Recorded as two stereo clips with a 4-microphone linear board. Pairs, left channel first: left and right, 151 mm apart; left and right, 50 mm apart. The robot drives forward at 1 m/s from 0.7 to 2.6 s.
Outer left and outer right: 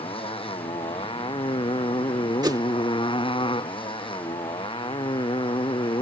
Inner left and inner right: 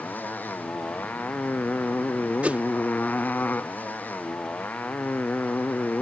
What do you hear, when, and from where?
0.0 s a motorcycle: 35° left (ahead or behind)
2.4 s a whoosh: 30° right (ahead or behind); by 2.6 s 25° right (ahead or behind)